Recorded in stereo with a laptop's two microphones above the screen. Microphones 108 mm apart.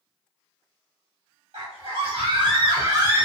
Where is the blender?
No blender in this recording.